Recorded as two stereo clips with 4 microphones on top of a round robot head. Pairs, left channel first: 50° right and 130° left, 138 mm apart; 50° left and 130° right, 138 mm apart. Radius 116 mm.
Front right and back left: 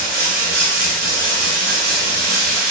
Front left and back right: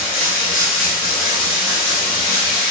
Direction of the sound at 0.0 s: 115° left.